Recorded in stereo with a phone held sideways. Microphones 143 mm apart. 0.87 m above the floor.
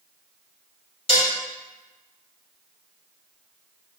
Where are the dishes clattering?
45° left (ahead or behind), 2.0 m.